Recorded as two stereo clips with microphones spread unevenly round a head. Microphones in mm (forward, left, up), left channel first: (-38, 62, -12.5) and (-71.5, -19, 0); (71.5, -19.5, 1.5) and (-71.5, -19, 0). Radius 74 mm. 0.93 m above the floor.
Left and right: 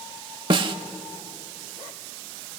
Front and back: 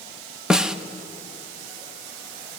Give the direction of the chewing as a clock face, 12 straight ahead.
I don't hear chewing.